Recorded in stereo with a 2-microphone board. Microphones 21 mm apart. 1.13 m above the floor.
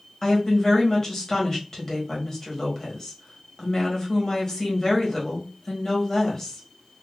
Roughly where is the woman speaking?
Left.